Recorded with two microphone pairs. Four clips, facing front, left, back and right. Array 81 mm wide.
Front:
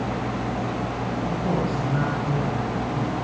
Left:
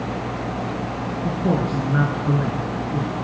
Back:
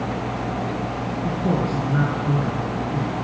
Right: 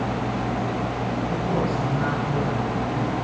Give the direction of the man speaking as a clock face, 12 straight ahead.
9 o'clock.